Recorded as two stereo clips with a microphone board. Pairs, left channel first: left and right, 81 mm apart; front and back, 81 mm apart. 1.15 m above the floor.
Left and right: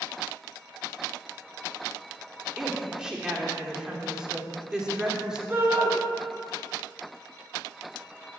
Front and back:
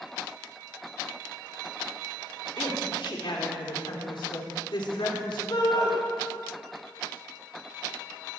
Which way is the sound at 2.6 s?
10° right.